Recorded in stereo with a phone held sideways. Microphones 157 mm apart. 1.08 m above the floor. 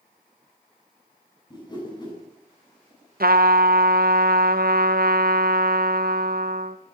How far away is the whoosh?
About 8 m.